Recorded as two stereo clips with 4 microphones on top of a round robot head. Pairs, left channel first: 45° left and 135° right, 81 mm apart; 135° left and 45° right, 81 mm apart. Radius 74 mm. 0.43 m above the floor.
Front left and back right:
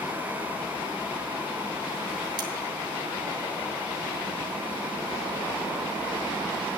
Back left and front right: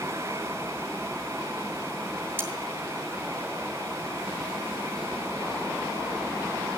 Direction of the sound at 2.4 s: 110° right.